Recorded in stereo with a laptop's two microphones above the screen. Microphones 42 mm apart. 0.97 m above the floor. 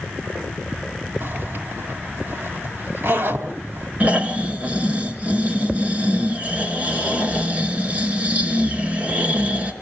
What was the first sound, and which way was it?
A zipper, 65° right (ahead or behind).